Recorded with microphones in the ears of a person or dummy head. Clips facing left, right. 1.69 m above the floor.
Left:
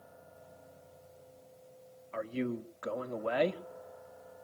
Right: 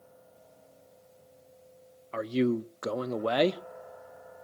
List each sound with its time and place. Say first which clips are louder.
2.1 s a man speaking: right 8 dB; 60° right (ahead or behind), 0.7 m